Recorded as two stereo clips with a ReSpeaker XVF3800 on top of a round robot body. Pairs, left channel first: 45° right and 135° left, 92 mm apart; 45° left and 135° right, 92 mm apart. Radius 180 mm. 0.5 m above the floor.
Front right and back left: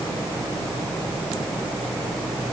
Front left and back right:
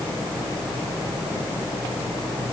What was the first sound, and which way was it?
Only background noise.